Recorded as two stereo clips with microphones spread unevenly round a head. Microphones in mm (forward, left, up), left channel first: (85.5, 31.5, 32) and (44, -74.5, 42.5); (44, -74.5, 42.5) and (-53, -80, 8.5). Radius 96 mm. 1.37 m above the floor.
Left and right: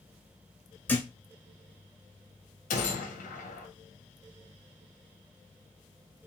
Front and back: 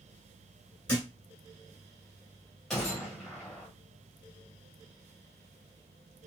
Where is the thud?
5° right, 1.5 m.